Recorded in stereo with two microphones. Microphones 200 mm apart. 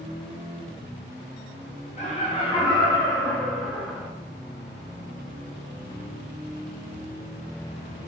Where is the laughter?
35° left (ahead or behind), 1.7 m; by 4.1 s 5° right (ahead or behind), 1.4 m.